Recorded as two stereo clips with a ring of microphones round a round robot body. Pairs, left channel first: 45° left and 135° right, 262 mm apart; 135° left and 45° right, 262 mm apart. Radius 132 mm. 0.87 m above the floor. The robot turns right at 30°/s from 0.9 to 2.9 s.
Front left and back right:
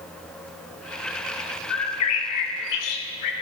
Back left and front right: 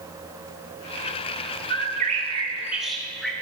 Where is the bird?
10° left, 0.8 m; by 3.3 s 45° left, 0.8 m.